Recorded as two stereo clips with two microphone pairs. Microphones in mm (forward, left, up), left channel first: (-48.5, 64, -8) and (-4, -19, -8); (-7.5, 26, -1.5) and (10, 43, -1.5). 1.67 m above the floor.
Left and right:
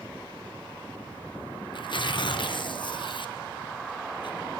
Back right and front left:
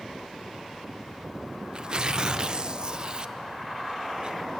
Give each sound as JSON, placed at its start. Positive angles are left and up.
{"t": 1.7, "sound": "tearing paper", "azimuth_deg": 95, "distance_m": 0.6}